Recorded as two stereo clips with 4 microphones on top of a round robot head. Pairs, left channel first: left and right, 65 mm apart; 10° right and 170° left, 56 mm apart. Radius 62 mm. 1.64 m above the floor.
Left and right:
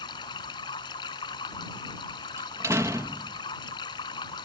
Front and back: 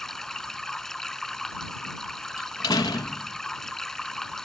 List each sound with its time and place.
0.0 s running water: 75° left
2.4 s a door slam: 30° right